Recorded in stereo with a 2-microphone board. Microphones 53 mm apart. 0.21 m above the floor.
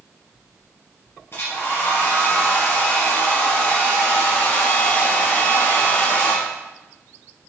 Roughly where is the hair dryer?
Left.